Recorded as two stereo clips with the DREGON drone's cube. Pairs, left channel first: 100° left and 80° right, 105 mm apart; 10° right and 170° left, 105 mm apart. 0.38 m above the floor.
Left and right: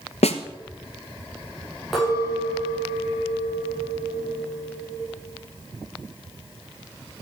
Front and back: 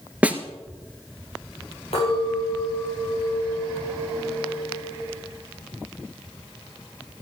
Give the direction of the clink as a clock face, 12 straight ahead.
12 o'clock.